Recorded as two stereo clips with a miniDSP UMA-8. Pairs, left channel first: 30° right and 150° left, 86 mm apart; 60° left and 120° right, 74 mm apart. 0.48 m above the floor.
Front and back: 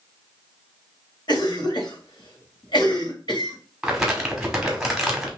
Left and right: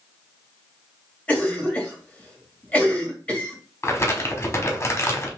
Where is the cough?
10° right, 2.0 m.